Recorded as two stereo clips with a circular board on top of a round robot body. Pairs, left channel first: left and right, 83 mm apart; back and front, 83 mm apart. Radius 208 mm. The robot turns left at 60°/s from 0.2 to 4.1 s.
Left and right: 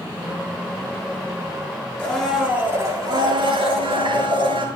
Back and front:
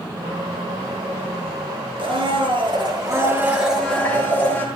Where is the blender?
15° left, 7.5 m; by 4.7 s 110° right, 7.5 m.